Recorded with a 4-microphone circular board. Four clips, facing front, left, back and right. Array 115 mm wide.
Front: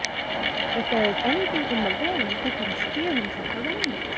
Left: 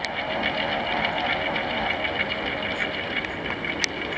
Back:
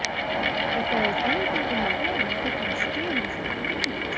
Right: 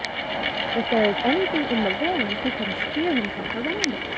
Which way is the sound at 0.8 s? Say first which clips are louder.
Right 5 dB, front 3 dB; 70° right.